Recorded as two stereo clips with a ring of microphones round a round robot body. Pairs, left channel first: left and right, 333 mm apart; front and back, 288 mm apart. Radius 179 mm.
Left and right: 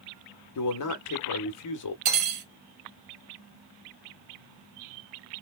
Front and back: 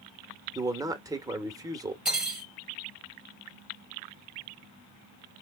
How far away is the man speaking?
About 1.2 m.